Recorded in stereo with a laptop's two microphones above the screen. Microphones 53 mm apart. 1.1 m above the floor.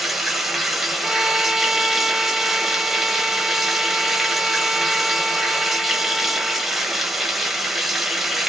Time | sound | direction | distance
0.0 | running water | 5° right (ahead or behind) | 1.1 m
1.0 | a violin | 10° right (ahead or behind) | 0.5 m